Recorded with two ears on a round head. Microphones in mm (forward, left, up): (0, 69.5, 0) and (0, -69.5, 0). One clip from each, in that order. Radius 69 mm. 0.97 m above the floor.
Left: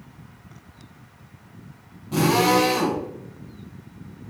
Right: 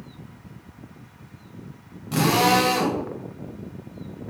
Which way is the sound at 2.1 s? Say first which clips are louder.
Even; 50° right (ahead or behind).